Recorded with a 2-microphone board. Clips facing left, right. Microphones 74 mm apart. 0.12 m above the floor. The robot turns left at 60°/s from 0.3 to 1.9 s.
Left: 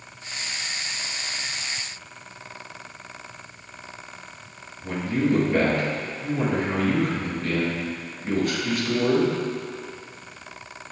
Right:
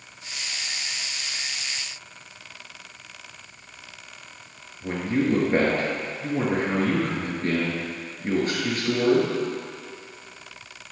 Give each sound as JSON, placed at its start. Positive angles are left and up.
{"t": 4.8, "sound": "a man speaking", "side_deg": -35, "distance_m": 2.5}